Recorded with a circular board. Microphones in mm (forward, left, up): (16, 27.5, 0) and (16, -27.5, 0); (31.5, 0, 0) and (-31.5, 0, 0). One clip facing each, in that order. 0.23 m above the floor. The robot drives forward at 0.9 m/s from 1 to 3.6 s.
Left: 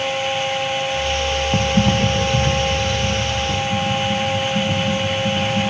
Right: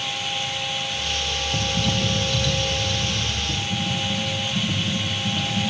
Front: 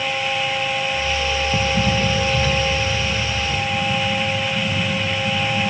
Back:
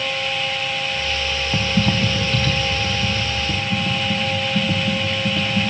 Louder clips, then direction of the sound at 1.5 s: Left 7 dB, back 1 dB; 105° left.